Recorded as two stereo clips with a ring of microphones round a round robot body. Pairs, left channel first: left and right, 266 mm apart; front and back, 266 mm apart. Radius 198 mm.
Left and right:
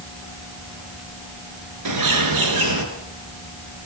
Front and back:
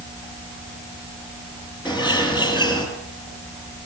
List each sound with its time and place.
1.9 s a bird: 95° right, 4 m